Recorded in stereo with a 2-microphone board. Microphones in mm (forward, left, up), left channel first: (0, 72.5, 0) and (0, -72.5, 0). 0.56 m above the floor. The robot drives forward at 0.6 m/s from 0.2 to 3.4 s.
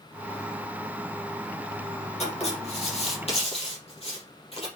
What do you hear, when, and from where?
2.2 s writing: 50° left (ahead or behind), 5 m; by 4.7 s 45° left (ahead or behind), 5.5 m